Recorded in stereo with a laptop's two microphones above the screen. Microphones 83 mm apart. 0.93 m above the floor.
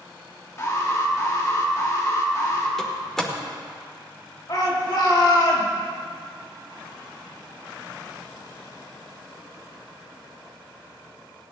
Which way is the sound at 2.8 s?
5° left (ahead or behind).